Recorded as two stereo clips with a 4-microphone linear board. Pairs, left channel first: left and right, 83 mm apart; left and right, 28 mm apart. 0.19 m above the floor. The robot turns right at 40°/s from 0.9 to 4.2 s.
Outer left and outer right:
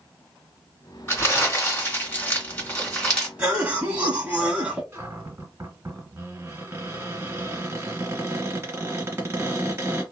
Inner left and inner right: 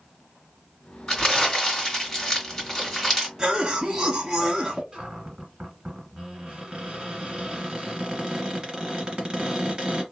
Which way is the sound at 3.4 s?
20° right (ahead or behind).